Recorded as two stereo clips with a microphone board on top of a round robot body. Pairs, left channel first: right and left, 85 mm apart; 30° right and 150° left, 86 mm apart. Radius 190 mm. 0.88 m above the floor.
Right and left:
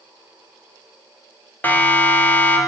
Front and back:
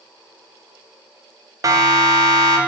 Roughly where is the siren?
Behind.